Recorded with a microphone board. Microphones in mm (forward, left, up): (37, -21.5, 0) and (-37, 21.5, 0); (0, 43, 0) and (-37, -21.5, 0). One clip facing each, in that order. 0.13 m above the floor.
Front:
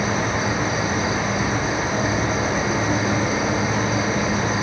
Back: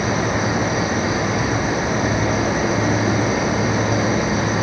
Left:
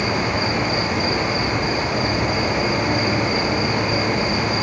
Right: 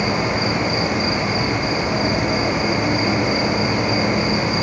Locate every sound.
0.0 s an insect: 175° left, 5 m